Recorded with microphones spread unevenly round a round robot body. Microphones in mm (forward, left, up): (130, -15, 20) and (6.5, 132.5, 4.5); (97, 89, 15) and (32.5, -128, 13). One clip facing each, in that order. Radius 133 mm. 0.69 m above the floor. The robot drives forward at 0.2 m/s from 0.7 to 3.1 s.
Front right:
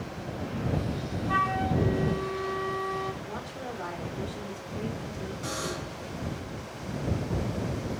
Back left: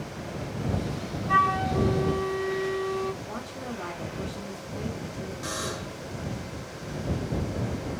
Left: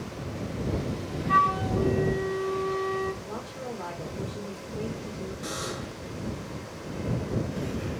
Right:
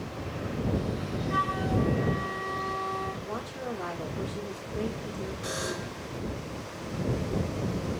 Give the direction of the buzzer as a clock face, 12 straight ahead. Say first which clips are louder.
Even, right 1 dB; 8 o'clock.